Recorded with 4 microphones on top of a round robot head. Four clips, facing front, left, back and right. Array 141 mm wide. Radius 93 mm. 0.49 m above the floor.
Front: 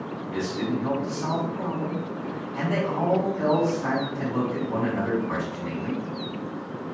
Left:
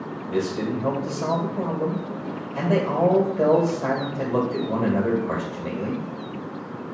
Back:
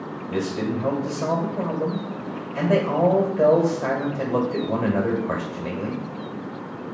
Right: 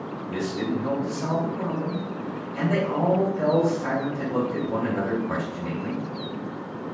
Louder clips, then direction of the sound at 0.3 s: Left 3 dB, back 3 dB; 150° left.